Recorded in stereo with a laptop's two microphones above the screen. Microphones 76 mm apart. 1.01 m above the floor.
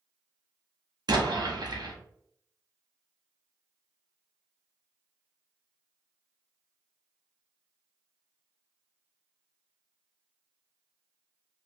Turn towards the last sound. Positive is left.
turn(degrees=-65)  # may be behind; listen again after turning